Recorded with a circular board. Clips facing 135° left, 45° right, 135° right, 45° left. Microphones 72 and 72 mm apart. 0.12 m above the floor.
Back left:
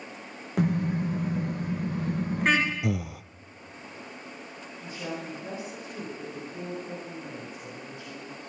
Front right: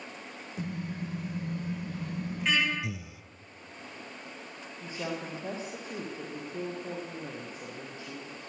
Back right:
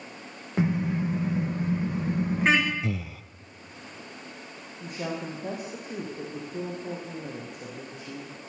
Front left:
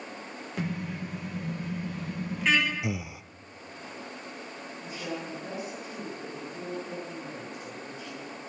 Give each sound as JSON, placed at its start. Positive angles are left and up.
{"t": 0.6, "sound": "a car horn", "azimuth_deg": 160, "distance_m": 4.5}
{"t": 2.8, "sound": "breathing", "azimuth_deg": 120, "distance_m": 0.7}
{"t": 4.8, "sound": "a woman speaking", "azimuth_deg": -105, "distance_m": 6.5}